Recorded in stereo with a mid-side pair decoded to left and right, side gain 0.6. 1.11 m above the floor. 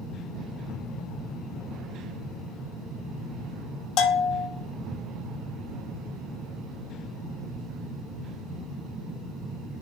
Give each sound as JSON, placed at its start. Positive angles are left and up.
{"t": 4.0, "sound": "a bell", "azimuth_deg": 65, "distance_m": 0.5}